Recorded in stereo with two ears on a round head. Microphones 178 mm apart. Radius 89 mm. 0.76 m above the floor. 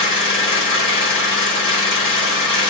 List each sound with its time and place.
0.0 s an engine running: 25° left (ahead or behind), 1.6 m